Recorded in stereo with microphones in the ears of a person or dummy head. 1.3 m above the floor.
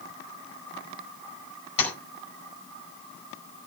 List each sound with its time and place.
1.8 s tapping: 40° left (ahead or behind), 5 m